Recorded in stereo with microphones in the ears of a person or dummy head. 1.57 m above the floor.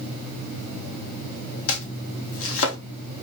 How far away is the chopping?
About 1.3 m.